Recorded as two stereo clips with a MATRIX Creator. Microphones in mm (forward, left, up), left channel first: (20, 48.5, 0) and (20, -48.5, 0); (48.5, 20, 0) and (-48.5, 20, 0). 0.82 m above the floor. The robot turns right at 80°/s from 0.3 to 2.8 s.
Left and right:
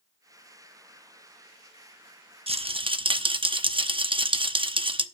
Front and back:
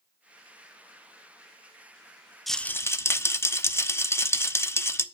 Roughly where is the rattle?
Right.